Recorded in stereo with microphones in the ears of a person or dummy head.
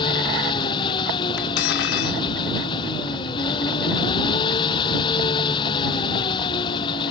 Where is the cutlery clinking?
65° left (ahead or behind).